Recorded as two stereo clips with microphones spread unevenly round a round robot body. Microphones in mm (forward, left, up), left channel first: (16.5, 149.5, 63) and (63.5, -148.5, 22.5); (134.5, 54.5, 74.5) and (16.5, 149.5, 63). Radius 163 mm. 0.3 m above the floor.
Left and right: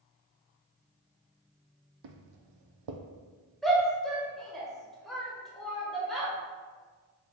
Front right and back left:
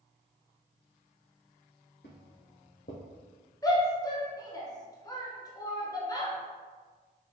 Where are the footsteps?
90° right, 0.6 m.